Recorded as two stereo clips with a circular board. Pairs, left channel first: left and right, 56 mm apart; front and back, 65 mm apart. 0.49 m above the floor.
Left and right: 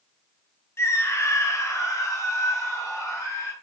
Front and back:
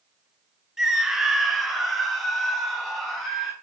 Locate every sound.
0.8 s a scream: 100° left, 1.7 m; by 3.5 s 85° left, 5 m